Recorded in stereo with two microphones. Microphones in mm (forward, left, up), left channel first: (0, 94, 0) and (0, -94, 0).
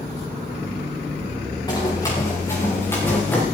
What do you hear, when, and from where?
1.7 s running footsteps: 20° left (ahead or behind), 7 m; by 3.4 s 10° left (ahead or behind), 5.5 m